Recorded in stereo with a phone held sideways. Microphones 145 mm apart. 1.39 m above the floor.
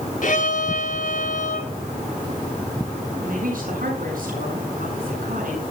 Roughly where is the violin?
Left.